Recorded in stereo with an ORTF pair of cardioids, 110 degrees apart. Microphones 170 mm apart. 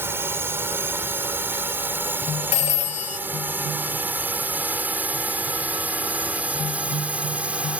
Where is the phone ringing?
45° left.